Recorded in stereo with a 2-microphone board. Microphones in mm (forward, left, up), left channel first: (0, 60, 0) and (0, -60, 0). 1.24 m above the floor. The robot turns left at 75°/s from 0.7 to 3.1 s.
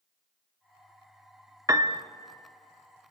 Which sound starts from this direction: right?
A piano, at 1.7 s.